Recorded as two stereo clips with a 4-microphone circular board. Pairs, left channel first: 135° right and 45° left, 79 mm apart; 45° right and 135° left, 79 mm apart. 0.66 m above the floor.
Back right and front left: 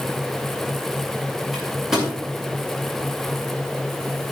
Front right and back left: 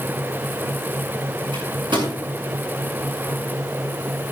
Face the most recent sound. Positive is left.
turn(degrees=130)